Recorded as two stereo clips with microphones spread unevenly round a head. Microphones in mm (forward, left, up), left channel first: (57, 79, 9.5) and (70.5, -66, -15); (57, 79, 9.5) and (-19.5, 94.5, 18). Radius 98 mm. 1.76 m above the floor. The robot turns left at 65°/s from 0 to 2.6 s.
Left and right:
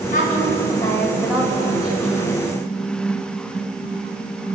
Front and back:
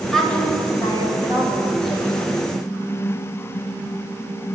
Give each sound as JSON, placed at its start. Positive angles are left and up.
{"t": 0.1, "sound": "a woman speaking", "azimuth_deg": 80, "distance_m": 7.5}